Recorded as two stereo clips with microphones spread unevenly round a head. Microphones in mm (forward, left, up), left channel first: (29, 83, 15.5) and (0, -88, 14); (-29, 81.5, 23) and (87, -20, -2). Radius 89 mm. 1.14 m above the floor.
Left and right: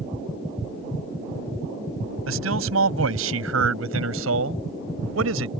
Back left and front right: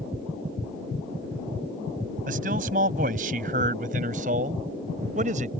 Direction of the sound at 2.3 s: 90° right.